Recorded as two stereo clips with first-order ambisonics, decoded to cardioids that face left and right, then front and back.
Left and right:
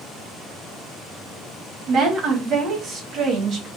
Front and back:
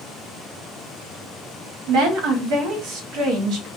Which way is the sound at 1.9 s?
150° right.